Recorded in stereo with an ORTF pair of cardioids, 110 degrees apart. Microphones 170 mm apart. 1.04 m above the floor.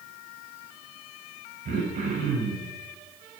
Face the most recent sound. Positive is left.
turn(degrees=-60)